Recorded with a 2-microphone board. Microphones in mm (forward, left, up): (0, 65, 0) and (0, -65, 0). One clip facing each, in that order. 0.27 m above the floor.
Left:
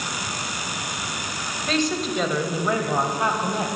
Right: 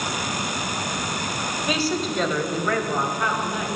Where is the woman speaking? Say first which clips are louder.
Left 2 dB; 10° right (ahead or behind), 1.3 m; by 3.7 s 35° left (ahead or behind), 1.4 m.